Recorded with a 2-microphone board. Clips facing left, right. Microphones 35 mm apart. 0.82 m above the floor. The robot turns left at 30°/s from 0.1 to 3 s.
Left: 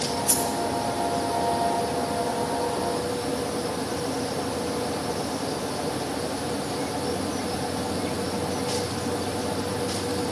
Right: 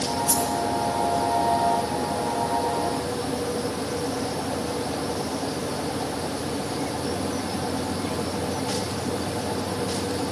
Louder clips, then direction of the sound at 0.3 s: Right 2 dB; 25° left (ahead or behind).